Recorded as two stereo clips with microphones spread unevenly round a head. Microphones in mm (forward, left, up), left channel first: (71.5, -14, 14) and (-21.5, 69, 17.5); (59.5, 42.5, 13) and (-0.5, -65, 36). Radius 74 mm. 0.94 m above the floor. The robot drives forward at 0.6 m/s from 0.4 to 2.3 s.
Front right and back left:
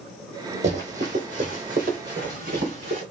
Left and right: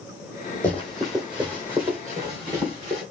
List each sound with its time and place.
0.6 s running footsteps: 145° left, 1.6 m; by 3.0 s straight behind, 3.5 m